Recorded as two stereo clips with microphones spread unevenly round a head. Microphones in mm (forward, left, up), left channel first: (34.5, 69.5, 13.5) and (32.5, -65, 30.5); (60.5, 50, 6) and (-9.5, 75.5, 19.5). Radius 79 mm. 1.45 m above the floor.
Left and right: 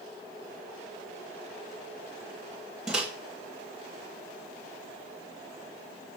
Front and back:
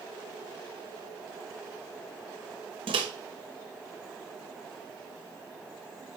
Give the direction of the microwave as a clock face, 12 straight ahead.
6 o'clock.